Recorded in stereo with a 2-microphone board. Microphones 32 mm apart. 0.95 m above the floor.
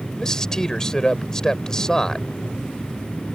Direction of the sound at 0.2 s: 25° left (ahead or behind).